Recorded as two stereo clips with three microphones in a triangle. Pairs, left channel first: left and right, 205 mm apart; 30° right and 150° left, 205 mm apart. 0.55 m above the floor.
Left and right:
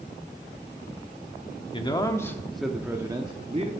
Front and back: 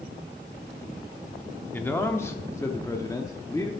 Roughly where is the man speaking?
Ahead left.